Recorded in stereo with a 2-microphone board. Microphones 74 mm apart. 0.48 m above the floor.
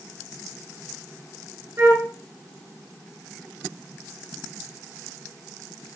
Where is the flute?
45° right (ahead or behind), 0.6 m.